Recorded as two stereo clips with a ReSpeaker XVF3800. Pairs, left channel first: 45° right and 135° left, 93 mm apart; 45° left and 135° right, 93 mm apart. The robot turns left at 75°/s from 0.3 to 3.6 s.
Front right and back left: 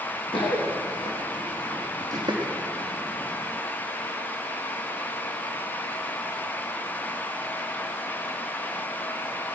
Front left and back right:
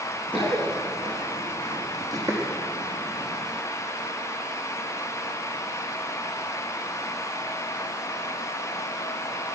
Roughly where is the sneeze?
I don't hear a sneeze.